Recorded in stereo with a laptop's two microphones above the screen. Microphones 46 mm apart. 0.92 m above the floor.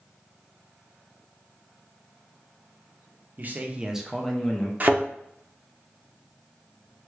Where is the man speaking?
40° right (ahead or behind), 0.6 m; by 4.7 s 25° left (ahead or behind), 0.7 m.